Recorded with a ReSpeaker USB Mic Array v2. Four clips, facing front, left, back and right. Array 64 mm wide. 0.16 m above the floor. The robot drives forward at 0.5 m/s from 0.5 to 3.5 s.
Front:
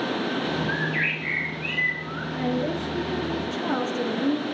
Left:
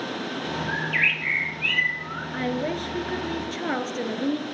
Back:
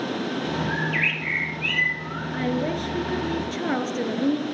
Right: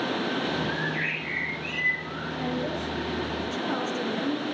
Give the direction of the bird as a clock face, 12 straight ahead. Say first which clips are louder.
Left 4 dB, back 1 dB; 8 o'clock.